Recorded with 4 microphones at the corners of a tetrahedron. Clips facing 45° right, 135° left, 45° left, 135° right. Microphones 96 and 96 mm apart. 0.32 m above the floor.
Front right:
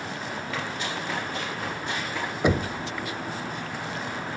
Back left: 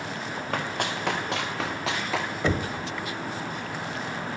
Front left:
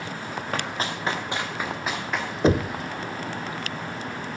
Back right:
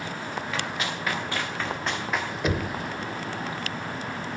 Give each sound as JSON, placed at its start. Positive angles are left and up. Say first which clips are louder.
{"t": 0.5, "sound": "running footsteps", "louder": "back left 4 dB, front left 4 dB", "azimuth_deg": 90, "distance_m": 3.0}
{"t": 2.4, "sound": "knocking", "louder": "front right 5 dB, front left 9 dB", "azimuth_deg": 15, "distance_m": 0.7}